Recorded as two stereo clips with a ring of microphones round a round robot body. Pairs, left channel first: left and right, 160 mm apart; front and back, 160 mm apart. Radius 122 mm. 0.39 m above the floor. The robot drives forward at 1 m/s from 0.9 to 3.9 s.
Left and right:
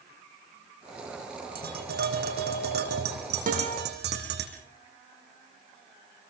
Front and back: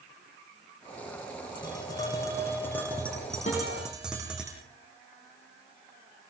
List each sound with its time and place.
1.6 s tapping: 70° right, 6 m; by 4.5 s 95° right, 6 m
3.5 s a guitar: 60° right, 7.5 m